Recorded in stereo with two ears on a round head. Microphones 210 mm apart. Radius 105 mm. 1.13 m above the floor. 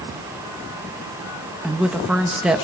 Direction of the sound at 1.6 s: 5° right (ahead or behind).